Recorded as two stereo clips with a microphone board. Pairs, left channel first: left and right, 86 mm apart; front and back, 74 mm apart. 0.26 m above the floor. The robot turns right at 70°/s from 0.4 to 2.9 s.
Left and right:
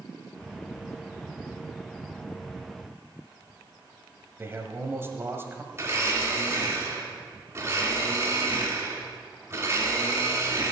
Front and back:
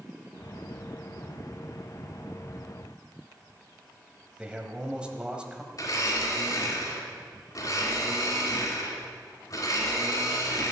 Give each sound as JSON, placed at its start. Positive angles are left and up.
{"t": 4.4, "sound": "a man speaking", "azimuth_deg": -115, "distance_m": 1.5}
{"t": 5.7, "sound": "a blender", "azimuth_deg": -30, "distance_m": 3.0}